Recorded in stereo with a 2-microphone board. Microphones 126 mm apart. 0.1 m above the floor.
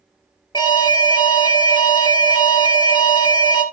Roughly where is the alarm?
Left.